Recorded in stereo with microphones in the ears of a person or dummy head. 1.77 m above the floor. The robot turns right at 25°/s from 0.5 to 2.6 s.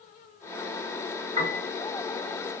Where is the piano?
20° right (ahead or behind), 2 m; by 1.7 s 30° right (ahead or behind), 2 m.